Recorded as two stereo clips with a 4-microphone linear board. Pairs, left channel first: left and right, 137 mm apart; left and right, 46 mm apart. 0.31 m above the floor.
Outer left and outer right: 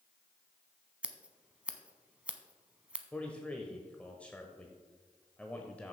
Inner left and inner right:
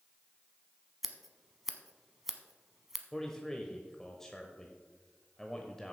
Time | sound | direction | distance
1.0 | scissors | 10° right (ahead or behind) | 0.8 m
3.1 | a man speaking | 10° left (ahead or behind) | 0.9 m